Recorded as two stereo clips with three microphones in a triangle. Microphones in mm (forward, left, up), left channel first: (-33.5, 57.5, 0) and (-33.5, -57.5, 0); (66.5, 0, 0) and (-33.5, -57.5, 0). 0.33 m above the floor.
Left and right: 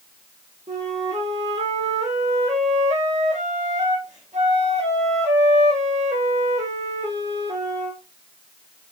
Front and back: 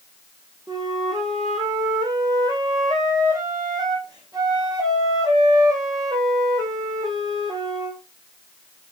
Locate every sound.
0.7 s a flute: 95° right, 2.5 m